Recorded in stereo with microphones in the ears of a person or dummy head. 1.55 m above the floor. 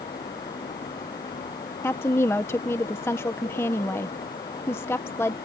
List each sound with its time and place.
1.8 s a woman speaking: 15° left (ahead or behind)